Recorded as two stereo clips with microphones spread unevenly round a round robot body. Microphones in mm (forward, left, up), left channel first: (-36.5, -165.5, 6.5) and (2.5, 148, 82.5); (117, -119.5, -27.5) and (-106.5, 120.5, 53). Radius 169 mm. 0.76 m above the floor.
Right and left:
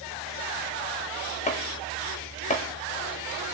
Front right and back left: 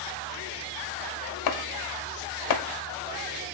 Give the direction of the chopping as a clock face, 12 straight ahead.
1 o'clock.